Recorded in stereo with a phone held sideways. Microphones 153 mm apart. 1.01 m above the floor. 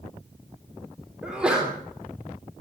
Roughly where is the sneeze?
Centre.